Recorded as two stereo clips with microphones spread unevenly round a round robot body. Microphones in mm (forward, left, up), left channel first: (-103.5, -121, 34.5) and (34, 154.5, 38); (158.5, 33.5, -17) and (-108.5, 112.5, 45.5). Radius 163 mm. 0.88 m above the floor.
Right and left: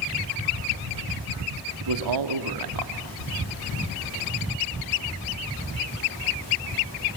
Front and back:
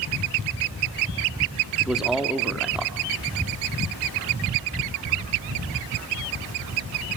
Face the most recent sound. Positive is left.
turn(degrees=70)